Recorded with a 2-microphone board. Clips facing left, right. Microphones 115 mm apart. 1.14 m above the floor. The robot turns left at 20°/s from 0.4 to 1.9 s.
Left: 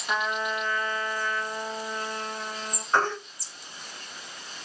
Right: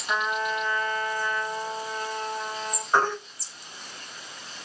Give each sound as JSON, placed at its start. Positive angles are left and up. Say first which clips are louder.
{"t": 0.1, "sound": "a trumpet", "louder": "right 1 dB", "azimuth_deg": 5, "distance_m": 1.0}
{"t": 2.9, "sound": "a baby crying", "louder": "right 2 dB", "side_deg": -10, "distance_m": 0.8}